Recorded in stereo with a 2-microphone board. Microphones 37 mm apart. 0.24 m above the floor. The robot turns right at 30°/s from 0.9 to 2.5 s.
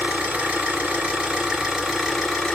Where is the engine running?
35° right, 2 m; by 2.5 s 15° left, 2 m.